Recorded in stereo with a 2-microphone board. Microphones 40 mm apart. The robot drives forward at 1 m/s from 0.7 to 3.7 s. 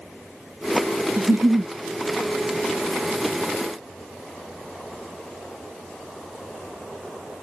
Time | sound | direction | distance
1.2 | a giggle | 85° right | ?